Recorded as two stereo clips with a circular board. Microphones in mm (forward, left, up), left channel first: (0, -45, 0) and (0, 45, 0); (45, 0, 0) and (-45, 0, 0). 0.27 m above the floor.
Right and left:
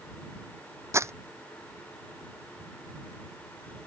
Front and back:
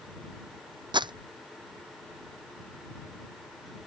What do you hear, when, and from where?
0.9 s crumpling: 150° left